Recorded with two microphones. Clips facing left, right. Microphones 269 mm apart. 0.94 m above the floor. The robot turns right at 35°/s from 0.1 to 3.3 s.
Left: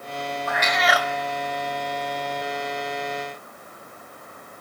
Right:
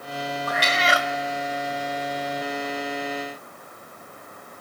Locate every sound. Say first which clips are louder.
0.5 s a cat meowing: left 2 dB; 40° right (ahead or behind), 0.5 m; by 1.1 s 25° right (ahead or behind), 0.5 m